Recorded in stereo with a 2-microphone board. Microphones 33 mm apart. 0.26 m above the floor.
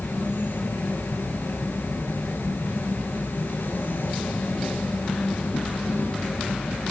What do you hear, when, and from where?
0.0 s an insect: 80° left, 2 m